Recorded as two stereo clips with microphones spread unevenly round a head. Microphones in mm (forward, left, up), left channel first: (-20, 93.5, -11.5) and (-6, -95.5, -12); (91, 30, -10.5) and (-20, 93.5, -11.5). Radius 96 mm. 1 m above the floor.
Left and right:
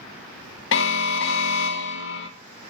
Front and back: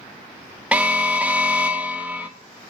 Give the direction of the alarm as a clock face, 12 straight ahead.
10 o'clock.